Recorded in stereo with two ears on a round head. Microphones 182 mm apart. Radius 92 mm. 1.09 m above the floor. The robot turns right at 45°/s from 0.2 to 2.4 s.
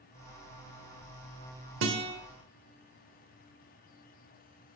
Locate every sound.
1.8 s a guitar: 65° right (ahead or behind), 1.5 m; by 2.1 s 55° right (ahead or behind), 1.5 m